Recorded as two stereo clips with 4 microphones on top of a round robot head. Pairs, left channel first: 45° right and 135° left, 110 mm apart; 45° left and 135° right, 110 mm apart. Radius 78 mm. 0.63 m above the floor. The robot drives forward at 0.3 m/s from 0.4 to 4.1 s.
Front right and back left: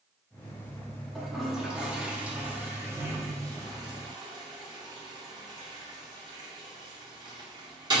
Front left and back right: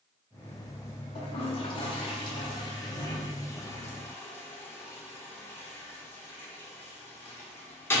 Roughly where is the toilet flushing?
Ahead left.